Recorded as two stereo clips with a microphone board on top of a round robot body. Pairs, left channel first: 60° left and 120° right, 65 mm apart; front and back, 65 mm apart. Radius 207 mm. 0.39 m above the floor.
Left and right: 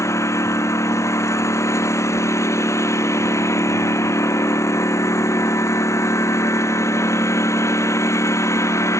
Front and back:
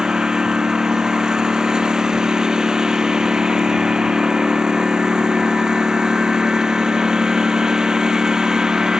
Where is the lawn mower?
100° left.